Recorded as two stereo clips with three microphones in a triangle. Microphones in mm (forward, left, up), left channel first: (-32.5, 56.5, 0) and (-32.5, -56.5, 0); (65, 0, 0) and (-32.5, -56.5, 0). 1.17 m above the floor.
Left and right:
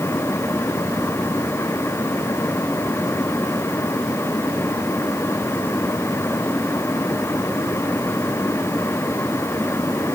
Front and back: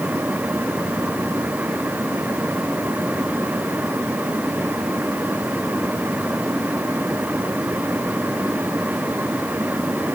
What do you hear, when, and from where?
Only background noise.